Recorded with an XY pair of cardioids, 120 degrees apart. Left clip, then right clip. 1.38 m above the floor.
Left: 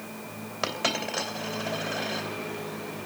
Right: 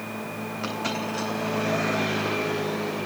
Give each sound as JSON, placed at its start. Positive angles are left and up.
{"t": 0.6, "sound": "a dropped coin", "azimuth_deg": 65, "distance_m": 3.0}